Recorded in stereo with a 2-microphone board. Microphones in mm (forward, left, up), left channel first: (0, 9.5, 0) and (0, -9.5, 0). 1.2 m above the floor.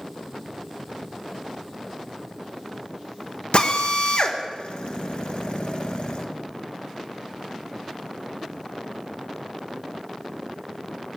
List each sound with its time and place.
3.5 s a drill: 65° left (ahead or behind), 1.5 m